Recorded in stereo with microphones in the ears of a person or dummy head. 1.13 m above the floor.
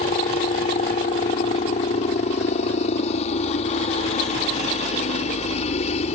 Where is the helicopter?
40° left (ahead or behind).